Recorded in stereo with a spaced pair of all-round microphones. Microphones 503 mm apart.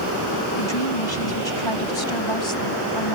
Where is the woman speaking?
60° left (ahead or behind); by 3.2 s 70° left (ahead or behind).